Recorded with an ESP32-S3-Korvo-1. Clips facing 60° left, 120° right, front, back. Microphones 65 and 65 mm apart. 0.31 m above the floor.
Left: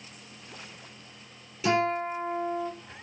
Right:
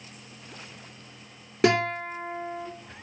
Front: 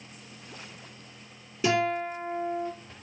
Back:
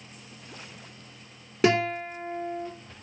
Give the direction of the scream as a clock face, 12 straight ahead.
No scream in this recording.